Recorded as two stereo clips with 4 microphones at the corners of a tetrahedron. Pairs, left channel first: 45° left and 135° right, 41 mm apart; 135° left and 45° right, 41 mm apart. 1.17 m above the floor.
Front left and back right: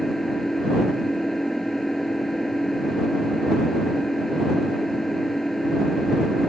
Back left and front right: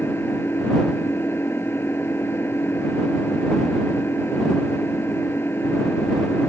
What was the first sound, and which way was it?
An engine running, 125° left.